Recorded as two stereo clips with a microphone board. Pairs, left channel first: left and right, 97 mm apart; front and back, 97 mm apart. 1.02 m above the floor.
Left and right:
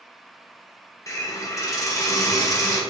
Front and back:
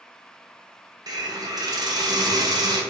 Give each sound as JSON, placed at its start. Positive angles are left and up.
{"t": 1.1, "sound": "a hiss", "azimuth_deg": 140, "distance_m": 0.7}